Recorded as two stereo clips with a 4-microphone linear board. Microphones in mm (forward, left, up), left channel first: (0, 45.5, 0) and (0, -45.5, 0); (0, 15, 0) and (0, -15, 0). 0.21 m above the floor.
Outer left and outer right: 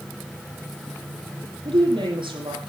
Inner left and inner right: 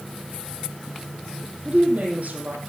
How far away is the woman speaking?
About 8.5 m.